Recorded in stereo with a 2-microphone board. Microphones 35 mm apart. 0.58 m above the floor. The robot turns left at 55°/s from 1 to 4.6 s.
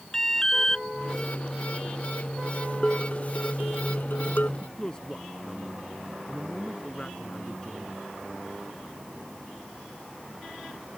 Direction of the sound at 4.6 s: 20° left (ahead or behind).